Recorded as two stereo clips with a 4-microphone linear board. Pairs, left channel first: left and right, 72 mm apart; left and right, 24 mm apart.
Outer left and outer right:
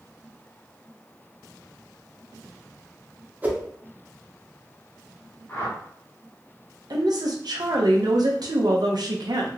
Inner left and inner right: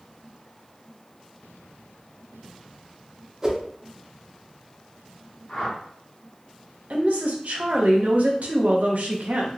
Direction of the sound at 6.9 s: 65° right (ahead or behind).